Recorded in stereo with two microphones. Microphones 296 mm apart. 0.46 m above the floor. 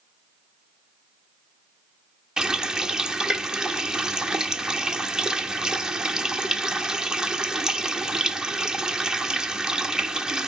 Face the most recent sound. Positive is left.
turn(degrees=-5)  # may be behind; listen again after turning